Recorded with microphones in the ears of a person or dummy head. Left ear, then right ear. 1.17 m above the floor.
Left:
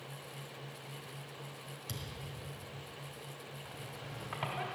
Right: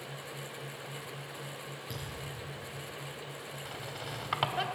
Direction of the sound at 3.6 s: 45° right (ahead or behind).